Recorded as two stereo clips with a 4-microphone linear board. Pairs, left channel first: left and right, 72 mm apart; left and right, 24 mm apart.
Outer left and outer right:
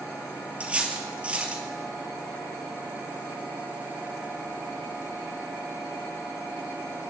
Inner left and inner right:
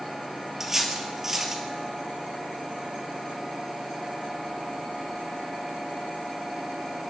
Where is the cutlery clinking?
15° right (ahead or behind), 2 m.